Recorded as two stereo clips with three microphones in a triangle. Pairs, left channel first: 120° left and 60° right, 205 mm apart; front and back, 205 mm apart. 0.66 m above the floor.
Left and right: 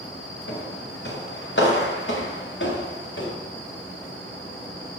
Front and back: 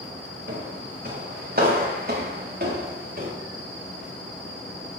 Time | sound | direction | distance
0.5 | footsteps | 140° left | 4 m